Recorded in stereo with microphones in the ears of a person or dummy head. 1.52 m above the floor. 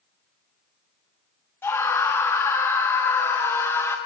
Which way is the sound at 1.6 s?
15° left (ahead or behind).